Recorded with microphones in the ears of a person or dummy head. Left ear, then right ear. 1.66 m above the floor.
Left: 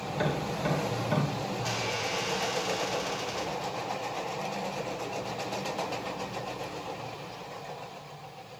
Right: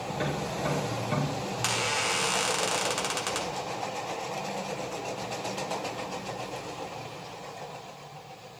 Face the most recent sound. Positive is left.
turn(degrees=-45)  # may be behind; listen again after turning